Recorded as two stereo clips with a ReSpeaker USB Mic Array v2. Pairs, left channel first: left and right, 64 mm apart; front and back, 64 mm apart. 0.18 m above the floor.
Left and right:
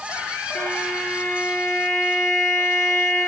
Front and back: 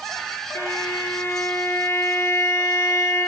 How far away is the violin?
About 2 m.